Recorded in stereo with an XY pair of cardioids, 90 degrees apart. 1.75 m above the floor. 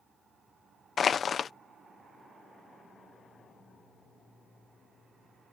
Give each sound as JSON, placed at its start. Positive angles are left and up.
{"t": 1.0, "sound": "crushing", "azimuth_deg": 55}